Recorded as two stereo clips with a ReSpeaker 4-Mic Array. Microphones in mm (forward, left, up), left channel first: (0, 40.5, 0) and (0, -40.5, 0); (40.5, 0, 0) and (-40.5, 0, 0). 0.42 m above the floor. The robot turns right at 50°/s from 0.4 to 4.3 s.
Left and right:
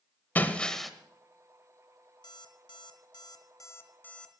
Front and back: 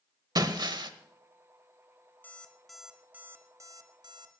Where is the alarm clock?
65° left, 1.6 m; by 4.4 s 170° left, 1.6 m.